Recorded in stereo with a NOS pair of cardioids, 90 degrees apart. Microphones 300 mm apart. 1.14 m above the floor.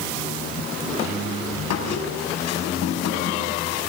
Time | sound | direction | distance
1.7 | a squeak | 60° left | 6 m